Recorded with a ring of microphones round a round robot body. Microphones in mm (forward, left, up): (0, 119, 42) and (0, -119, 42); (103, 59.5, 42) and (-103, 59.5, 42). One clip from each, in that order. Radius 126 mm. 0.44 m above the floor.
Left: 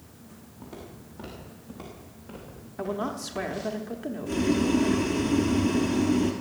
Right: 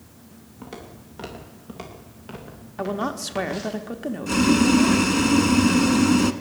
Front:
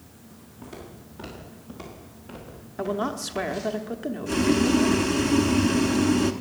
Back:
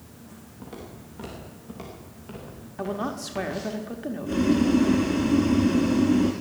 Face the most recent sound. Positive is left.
turn(degrees=-55)